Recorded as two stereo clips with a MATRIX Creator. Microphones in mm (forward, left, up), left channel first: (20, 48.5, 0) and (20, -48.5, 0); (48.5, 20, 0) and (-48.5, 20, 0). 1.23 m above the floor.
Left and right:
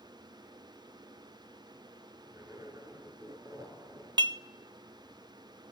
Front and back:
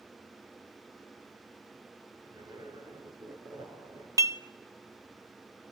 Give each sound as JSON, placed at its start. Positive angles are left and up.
{"t": 2.3, "sound": "a zipper", "azimuth_deg": -140, "distance_m": 5.0}
{"t": 4.2, "sound": "dishes clattering", "azimuth_deg": -125, "distance_m": 0.6}